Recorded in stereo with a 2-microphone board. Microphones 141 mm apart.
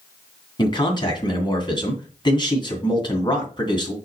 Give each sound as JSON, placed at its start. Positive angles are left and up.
{"t": 0.6, "sound": "a man speaking", "side_deg": 35, "distance_m": 2.0}